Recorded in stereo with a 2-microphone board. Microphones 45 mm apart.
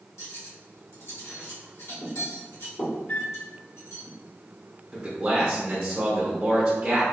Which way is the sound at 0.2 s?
80° left.